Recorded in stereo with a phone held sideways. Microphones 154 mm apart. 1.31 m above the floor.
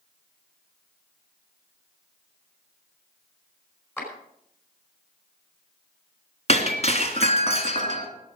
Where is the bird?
I don't hear a bird.